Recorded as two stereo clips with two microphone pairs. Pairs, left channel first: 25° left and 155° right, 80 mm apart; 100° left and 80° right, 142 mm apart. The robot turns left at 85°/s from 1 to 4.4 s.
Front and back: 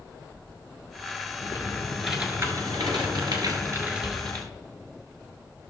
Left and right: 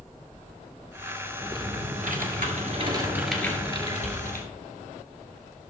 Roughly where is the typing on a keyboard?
Ahead.